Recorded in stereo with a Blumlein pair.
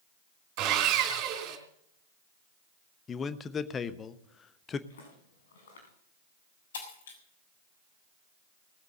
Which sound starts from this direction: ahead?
A man speaking, at 3.1 s.